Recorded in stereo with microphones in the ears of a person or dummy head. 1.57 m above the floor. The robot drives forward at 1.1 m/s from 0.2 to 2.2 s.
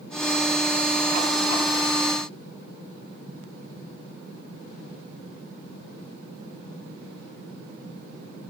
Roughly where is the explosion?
No explosion in this recording.